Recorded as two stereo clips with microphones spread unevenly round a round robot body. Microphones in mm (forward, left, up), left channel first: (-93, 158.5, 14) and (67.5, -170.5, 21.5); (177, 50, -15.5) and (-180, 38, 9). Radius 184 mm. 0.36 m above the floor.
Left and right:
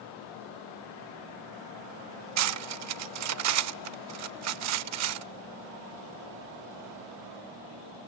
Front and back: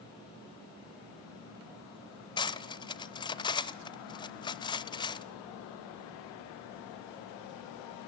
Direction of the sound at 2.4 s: 65° right.